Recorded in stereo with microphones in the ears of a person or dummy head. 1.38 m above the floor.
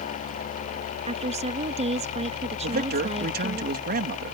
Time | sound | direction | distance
1.1 | a woman speaking | 35° right (ahead or behind) | ?
2.6 | a man speaking | 50° right (ahead or behind) | ?